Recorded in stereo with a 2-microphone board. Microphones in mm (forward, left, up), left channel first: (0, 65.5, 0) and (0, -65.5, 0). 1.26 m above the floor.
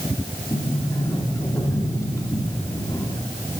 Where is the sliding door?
25° left (ahead or behind), 1.9 m.